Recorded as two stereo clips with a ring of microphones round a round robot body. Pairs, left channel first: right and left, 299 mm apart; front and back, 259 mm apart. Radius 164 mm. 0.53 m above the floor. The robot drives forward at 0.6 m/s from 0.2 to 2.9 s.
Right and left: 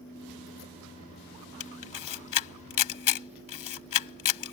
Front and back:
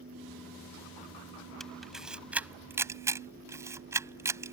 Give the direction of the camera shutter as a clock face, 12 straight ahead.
3 o'clock.